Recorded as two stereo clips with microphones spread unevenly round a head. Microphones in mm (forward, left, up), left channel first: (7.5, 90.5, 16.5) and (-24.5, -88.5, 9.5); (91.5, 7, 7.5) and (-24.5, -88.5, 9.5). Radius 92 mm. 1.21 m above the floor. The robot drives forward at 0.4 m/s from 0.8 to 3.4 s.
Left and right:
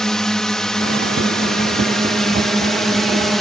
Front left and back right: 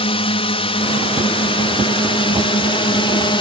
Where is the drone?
5° right; by 3.4 s 10° right.